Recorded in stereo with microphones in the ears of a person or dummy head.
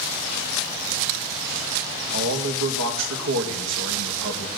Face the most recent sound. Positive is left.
turn(degrees=-70)  # may be behind; listen again after turning